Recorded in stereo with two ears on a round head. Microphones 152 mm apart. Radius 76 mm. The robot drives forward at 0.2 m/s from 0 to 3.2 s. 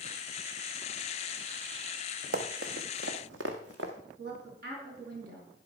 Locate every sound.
2.3 s running footsteps: 50° right (ahead or behind), 1.5 m; by 3.9 s 70° right (ahead or behind), 2 m
4.2 s a woman speaking: 60° right (ahead or behind), 4.5 m